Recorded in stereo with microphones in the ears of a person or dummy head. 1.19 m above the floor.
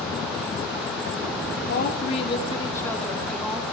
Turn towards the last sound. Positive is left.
turn(degrees=0)  # may be behind; listen again after turning